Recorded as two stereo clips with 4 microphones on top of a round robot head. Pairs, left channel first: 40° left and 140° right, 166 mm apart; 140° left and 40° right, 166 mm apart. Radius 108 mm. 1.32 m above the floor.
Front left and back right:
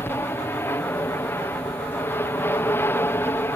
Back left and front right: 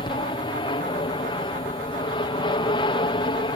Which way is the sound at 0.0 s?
105° left.